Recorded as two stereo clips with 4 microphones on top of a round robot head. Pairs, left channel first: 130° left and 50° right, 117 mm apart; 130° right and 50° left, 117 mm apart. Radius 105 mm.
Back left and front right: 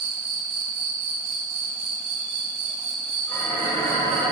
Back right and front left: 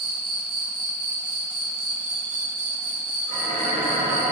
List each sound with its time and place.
0.0 s an insect: straight ahead, 0.9 m
3.3 s dishes clattering: 65° left, 3 m